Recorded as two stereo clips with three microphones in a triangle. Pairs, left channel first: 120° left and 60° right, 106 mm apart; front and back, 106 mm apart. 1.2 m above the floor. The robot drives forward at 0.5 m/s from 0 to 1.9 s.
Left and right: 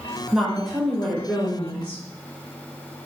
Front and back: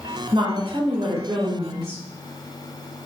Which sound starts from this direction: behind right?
A woman speaking, at 0.3 s.